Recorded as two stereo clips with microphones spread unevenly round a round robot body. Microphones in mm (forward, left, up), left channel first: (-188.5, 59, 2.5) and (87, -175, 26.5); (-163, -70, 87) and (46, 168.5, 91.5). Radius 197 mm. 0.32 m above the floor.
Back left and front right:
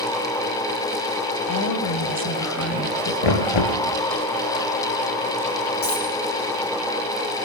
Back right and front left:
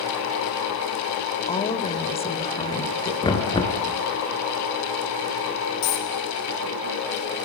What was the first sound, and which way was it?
A woman speaking, 160° left.